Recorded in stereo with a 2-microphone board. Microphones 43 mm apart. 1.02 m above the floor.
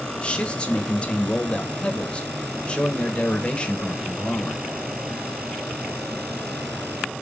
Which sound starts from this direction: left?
A man speaking, at 0.2 s.